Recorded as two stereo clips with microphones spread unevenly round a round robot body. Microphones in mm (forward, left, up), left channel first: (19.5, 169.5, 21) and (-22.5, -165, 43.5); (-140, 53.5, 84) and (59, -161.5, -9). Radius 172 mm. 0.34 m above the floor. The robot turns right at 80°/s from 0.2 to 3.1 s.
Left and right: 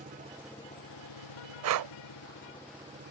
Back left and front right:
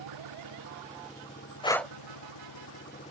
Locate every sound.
0.0 s an engine running: 30° right; by 3.1 s 155° right
1.6 s breathing: 145° right; by 1.9 s 125° right